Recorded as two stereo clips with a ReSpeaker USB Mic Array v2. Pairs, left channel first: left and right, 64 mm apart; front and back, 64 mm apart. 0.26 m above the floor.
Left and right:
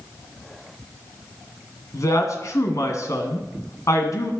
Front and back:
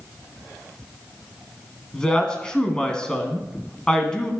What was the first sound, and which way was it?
A woman speaking, 75° left.